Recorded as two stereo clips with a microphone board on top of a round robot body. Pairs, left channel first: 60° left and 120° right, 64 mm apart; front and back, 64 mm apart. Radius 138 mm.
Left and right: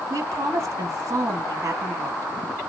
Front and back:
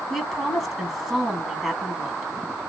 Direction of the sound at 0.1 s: 90° right.